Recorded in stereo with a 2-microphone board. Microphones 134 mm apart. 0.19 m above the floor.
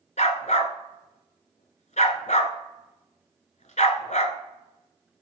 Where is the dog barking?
65° left (ahead or behind), 1.2 m.